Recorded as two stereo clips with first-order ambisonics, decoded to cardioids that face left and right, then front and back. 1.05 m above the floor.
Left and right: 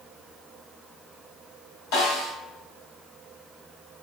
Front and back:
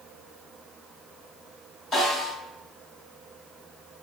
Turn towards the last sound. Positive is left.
turn(degrees=85)